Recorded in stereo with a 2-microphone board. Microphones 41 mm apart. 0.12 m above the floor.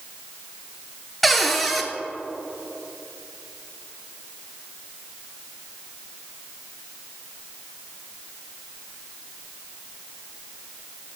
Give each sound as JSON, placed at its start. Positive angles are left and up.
{"t": 1.2, "sound": "a cupboard door", "side_deg": 0, "distance_m": 0.7}